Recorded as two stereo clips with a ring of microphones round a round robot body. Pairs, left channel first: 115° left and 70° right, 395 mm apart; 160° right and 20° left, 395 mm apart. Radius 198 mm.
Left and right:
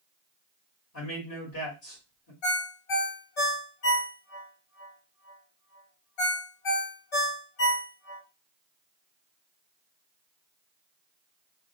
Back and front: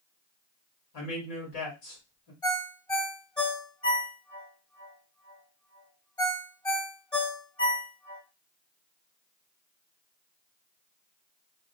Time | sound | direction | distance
0.9 | a man speaking | 170° left | 1.4 m
2.4 | a ringtone | 125° left | 1.5 m